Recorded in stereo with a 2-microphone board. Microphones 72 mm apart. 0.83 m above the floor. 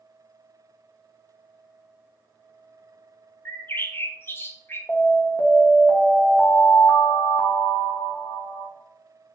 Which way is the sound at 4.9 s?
45° left (ahead or behind).